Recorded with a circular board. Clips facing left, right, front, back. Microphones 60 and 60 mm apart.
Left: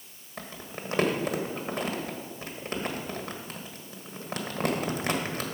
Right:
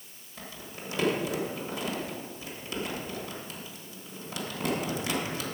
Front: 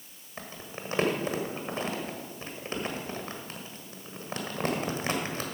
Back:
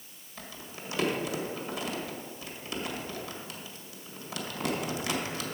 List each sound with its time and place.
0.4 s crumpling: 50° left, 1.3 m